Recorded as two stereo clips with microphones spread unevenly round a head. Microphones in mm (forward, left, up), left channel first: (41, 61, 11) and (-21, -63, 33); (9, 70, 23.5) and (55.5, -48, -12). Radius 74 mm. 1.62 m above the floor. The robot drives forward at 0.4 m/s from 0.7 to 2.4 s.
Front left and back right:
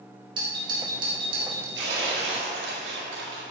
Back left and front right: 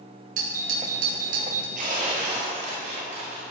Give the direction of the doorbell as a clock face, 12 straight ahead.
2 o'clock.